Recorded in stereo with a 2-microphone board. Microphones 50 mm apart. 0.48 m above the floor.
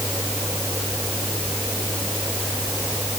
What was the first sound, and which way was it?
Only background noise.